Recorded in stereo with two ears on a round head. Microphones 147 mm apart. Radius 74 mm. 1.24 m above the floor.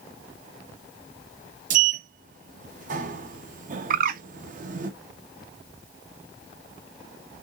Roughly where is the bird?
Right.